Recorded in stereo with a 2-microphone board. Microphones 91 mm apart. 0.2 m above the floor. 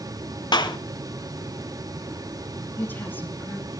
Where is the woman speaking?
20° left (ahead or behind), 3 m.